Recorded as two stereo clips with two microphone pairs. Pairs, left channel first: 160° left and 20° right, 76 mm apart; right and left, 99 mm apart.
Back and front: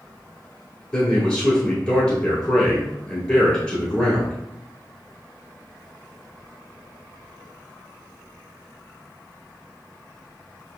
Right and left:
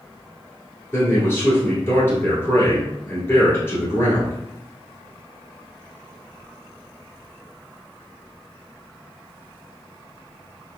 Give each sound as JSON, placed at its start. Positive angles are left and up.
{"t": 0.9, "sound": "a man speaking", "azimuth_deg": -135, "distance_m": 1.3}